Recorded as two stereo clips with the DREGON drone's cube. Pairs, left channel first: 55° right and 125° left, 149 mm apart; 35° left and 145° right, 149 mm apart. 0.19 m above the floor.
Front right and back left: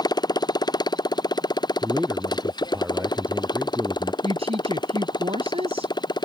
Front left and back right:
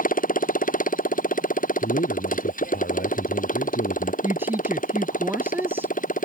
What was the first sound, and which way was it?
A motorcycle, 5° left.